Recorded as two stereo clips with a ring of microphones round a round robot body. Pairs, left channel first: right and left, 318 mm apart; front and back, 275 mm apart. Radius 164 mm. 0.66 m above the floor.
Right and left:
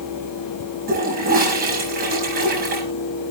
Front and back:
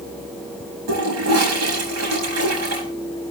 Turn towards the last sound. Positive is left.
turn(degrees=155)